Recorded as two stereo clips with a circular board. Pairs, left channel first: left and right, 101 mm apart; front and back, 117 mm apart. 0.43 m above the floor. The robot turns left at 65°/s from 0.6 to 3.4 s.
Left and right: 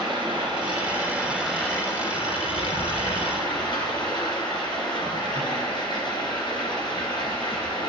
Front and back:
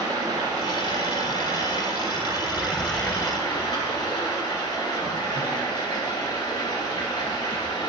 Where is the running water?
125° right, 3 m; by 7.9 s 50° left, 3 m.